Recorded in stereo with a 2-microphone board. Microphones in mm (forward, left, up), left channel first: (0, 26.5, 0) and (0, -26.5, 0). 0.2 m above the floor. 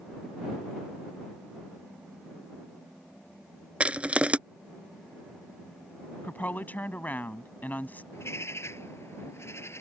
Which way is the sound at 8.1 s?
55° left (ahead or behind).